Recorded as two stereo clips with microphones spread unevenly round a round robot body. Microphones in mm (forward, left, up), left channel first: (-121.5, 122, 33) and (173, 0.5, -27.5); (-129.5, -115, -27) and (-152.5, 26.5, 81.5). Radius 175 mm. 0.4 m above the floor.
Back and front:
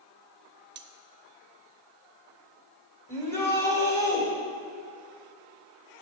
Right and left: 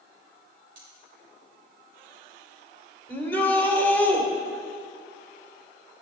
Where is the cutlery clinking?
25° left, 1.0 m.